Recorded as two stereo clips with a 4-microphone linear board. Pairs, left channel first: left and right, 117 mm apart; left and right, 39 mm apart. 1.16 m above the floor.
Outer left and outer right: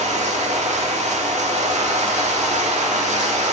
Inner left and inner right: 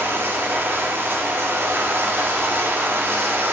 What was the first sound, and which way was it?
Running water, 75° right (ahead or behind).